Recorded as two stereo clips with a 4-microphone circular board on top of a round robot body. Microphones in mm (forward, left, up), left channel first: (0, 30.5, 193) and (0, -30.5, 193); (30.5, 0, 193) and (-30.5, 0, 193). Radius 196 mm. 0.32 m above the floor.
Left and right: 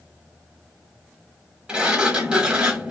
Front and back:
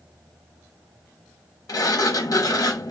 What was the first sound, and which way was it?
A sliding door, 15° right.